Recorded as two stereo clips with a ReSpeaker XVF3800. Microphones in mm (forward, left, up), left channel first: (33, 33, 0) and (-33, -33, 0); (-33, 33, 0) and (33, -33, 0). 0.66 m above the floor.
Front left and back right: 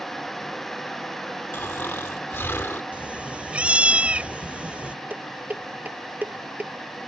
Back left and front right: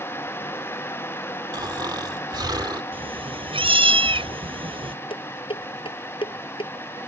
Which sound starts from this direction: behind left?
Dishes clattering, at 5.1 s.